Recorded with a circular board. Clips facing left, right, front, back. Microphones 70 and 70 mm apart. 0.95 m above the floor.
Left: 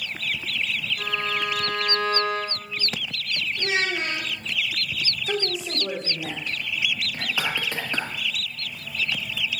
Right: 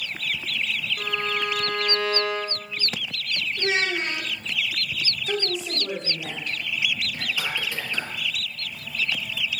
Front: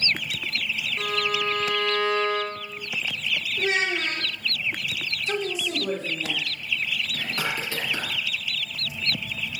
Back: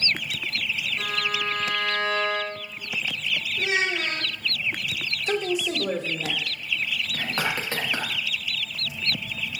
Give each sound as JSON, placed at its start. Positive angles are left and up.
{"t": 1.0, "sound": "a violin", "azimuth_deg": -60, "distance_m": 2.0}
{"t": 3.6, "sound": "a child speaking", "azimuth_deg": -40, "distance_m": 2.5}
{"t": 5.3, "sound": "a woman speaking", "azimuth_deg": 170, "distance_m": 1.4}
{"t": 7.1, "sound": "whispering", "azimuth_deg": 135, "distance_m": 1.0}